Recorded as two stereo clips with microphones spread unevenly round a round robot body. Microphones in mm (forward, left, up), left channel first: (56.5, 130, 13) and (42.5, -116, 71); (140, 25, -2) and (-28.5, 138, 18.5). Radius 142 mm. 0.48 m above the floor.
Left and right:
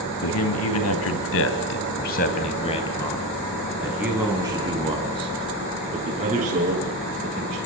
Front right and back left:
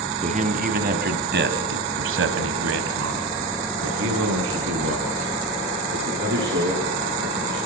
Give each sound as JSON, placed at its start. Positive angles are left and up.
{"t": 0.2, "sound": "a man speaking", "azimuth_deg": 95, "distance_m": 3.5}